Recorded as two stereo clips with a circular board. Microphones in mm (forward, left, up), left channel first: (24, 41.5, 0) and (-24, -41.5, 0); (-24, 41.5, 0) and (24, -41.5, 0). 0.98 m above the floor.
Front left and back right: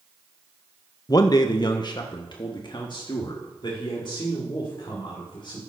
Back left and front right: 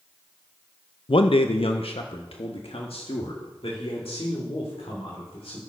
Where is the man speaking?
105° left, 0.5 m; by 5.6 s 100° left, 3 m.